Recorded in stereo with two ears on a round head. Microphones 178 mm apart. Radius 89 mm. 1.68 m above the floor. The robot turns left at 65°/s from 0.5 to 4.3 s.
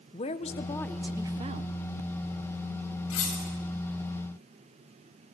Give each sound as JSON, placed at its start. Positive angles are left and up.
{"t": 0.1, "sound": "a woman speaking", "azimuth_deg": 30, "distance_m": 1.1}
{"t": 3.1, "sound": "cutlery clinking", "side_deg": 80, "distance_m": 5.5}